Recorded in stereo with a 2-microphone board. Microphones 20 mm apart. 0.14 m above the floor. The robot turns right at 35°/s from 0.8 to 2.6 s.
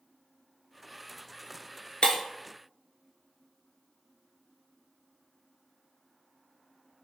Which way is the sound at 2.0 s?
65° left (ahead or behind).